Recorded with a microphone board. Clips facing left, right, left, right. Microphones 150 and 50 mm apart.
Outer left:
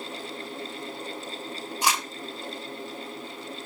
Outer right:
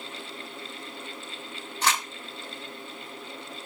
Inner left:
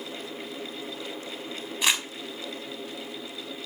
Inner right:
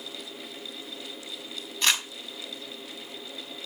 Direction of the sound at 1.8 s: 10° left (ahead or behind).